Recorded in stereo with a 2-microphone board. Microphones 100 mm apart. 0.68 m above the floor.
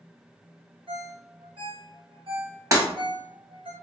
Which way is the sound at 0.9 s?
65° right (ahead or behind).